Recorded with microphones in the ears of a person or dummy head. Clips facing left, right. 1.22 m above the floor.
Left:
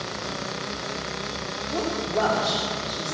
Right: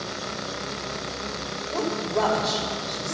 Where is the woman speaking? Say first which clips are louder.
Even; 10° left (ahead or behind), 4 m.